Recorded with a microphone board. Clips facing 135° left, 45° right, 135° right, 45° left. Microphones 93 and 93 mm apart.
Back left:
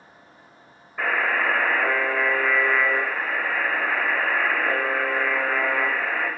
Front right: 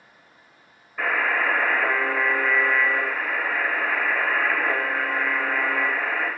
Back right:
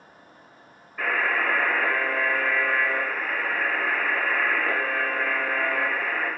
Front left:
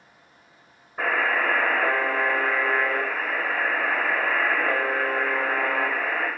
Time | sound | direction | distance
1.0 | a buzzer | 55° left | 1.4 m